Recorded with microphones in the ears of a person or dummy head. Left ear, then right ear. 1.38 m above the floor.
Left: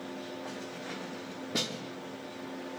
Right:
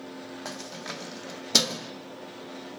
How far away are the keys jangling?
About 1.1 m.